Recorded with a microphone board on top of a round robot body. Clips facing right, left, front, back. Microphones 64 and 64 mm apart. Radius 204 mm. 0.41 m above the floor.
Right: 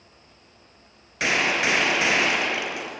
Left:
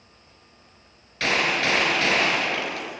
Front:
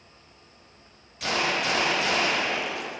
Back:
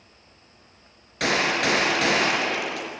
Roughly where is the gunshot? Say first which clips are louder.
Even, back 4 dB; behind.